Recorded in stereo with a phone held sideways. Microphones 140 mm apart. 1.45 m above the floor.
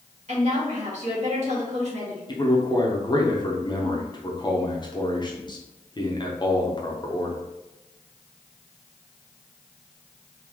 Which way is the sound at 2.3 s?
30° left (ahead or behind).